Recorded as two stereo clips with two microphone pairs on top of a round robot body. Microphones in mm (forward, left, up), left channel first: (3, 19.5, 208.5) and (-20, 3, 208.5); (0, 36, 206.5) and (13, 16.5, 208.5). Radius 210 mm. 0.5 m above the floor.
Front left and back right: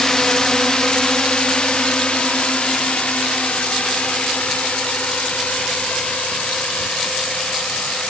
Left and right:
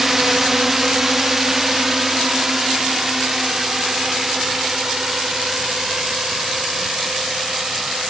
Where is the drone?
15° left; by 8.1 s 20° left.